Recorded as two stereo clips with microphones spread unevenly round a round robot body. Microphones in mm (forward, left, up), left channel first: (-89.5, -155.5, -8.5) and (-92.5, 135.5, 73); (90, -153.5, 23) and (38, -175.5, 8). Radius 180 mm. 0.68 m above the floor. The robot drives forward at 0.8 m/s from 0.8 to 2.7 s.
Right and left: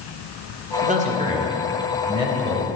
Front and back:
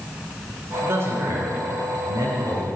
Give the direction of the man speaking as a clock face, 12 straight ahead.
7 o'clock.